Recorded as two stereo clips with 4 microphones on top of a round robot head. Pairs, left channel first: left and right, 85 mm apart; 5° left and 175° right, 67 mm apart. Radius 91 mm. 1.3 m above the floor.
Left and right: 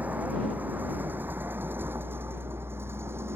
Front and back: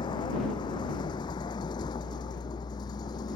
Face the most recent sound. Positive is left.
turn(degrees=-30)